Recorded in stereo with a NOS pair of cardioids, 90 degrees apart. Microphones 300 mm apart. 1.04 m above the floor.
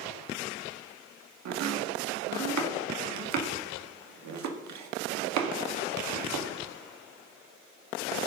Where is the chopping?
65° right, 1.6 m.